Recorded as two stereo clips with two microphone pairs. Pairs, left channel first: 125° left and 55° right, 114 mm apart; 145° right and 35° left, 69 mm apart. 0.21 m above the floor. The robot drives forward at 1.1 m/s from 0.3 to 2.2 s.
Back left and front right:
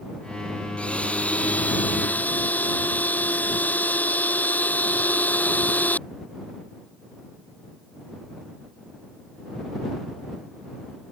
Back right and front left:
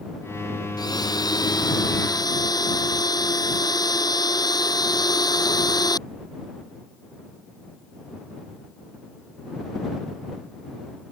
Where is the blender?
155° right; by 6.0 s 160° right.